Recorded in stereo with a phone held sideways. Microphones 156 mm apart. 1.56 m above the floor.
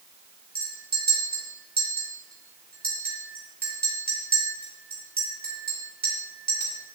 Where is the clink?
80° right, 3 m.